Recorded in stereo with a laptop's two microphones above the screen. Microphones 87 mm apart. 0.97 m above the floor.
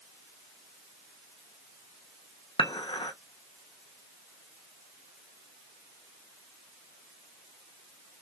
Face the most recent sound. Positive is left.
turn(degrees=80)